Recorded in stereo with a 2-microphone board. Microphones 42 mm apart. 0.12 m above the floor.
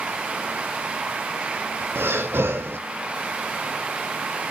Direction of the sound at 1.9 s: 65° right (ahead or behind).